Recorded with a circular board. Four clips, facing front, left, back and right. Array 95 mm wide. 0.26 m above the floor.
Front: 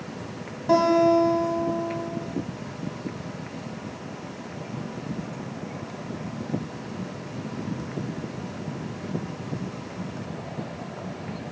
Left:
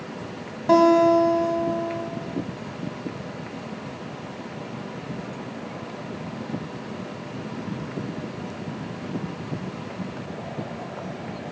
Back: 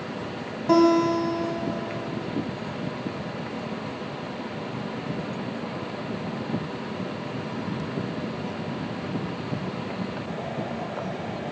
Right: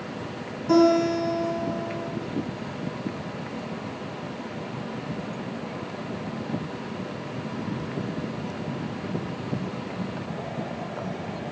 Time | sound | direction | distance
0.7 | a guitar | 95° left | 2 m